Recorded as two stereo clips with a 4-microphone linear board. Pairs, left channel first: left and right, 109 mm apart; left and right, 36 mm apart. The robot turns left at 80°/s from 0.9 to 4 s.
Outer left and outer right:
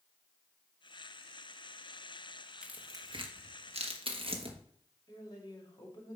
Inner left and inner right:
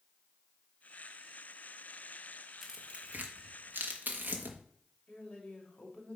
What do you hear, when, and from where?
2.6 s tearing paper: 5° right (ahead or behind), 1.2 m; by 4.6 s 55° right (ahead or behind), 1.2 m
5.1 s a woman speaking: 35° left (ahead or behind), 2.5 m